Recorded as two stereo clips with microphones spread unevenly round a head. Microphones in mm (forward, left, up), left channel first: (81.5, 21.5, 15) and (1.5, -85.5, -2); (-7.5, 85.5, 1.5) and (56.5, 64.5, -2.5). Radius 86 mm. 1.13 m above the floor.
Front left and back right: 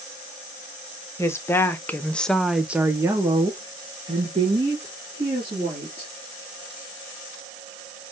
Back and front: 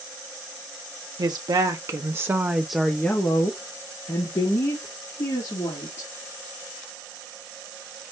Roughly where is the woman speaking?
Ahead.